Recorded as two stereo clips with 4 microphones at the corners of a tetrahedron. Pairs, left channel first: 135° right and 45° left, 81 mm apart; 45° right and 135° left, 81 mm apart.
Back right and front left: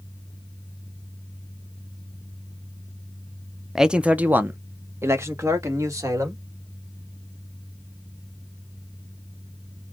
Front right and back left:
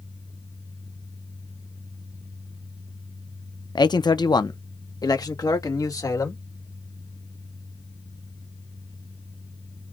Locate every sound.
3.8 s a man speaking: 40° right, 0.6 m; by 6.4 s 5° right, 1.8 m